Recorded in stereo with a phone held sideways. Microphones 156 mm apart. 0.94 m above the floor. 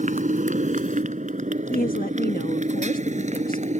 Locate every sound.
0.0 s a motorcycle: 55° right (ahead or behind); by 3.8 s 50° right (ahead or behind)
1.7 s a woman speaking: 70° left (ahead or behind)